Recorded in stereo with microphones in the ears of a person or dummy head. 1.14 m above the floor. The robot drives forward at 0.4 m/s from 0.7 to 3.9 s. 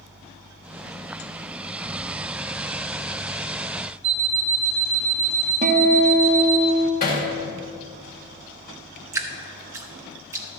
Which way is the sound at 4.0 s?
60° right (ahead or behind).